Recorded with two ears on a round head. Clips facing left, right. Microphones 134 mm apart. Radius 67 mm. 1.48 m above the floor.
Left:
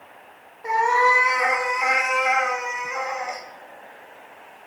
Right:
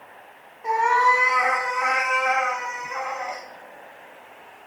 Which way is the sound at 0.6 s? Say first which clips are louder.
Even; 5° left (ahead or behind).